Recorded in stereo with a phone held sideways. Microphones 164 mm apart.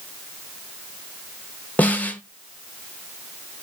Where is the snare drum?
10° left (ahead or behind), 0.7 m.